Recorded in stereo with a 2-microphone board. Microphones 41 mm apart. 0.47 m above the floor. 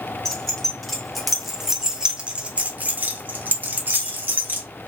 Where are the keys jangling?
10° left (ahead or behind), 1.4 m; by 4.7 s 50° right (ahead or behind), 1.3 m.